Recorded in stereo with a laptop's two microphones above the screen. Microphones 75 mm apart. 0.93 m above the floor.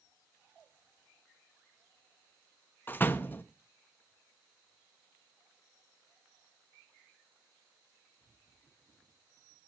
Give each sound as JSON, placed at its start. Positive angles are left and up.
{"t": 2.9, "sound": "a door slam", "side_deg": 30, "distance_m": 0.9}